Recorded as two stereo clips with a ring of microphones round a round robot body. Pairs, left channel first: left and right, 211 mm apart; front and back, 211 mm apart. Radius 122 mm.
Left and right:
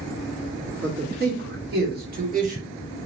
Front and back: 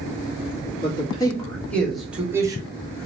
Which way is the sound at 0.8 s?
60° right.